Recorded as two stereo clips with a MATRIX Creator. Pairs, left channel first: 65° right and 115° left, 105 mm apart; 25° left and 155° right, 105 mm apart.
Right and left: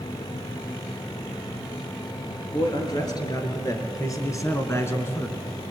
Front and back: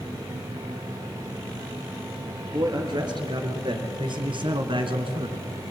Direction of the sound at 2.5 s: 115° right.